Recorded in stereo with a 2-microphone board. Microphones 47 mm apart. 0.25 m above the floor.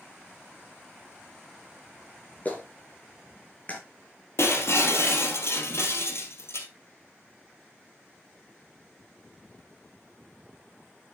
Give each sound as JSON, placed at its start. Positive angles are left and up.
{"t": 2.5, "sound": "a clap", "side_deg": 35, "distance_m": 3.0}
{"t": 4.4, "sound": "breaking glass", "side_deg": 65, "distance_m": 2.5}